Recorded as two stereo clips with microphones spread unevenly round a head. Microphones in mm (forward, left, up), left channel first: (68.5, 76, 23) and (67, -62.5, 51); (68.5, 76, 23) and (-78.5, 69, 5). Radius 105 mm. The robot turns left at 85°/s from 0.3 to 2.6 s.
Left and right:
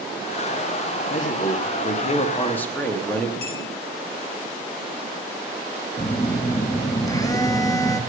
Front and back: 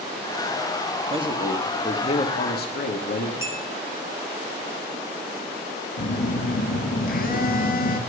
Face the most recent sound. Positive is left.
turn(degrees=25)